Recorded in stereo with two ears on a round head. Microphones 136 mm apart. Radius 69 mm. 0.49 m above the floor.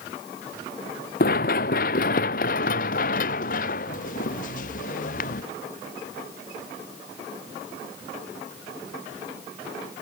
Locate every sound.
1.2 s running footsteps: 60° left (ahead or behind); by 5.4 s 55° left (ahead or behind)